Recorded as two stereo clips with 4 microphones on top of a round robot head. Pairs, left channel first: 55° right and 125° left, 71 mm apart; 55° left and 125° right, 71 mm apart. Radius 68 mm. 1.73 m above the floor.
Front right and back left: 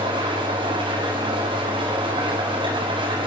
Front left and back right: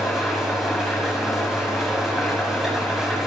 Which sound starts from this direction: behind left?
An engine running, at 0.0 s.